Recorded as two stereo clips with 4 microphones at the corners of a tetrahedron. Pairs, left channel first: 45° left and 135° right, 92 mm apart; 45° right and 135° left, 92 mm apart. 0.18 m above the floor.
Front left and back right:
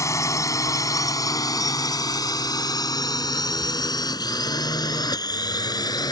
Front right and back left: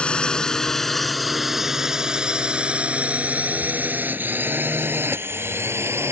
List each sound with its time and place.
0.0 s a drone: 25° left; by 6.1 s 80° left